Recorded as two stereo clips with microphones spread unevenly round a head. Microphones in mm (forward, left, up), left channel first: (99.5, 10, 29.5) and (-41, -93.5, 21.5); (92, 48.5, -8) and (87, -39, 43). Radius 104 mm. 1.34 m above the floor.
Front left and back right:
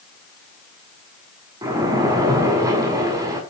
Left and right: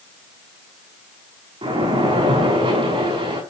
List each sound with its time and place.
1.6 s a splash: 70° right, 6 m